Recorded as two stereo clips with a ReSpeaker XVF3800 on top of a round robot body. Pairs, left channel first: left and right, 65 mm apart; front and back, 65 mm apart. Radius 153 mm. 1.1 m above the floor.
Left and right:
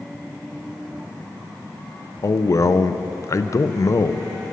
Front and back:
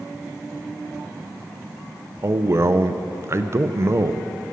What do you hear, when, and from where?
2.2 s a man speaking: 130° left, 0.6 m